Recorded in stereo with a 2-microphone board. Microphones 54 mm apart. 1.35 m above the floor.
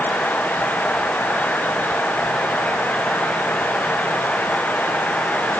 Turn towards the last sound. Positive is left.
No sound to turn to.